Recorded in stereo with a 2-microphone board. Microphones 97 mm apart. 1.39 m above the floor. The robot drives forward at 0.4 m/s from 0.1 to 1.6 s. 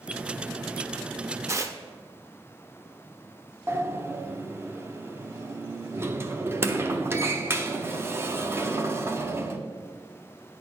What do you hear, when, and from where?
1.5 s tearing paper: 30° right (ahead or behind), 0.6 m
3.7 s a sliding door: 25° right (ahead or behind), 0.6 m